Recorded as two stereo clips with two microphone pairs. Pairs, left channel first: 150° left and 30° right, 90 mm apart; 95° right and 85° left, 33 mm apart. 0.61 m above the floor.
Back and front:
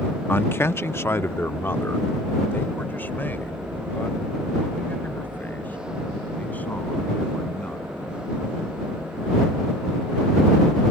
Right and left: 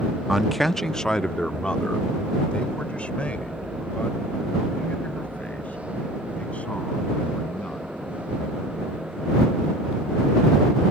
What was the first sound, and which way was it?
A man speaking, 145° left.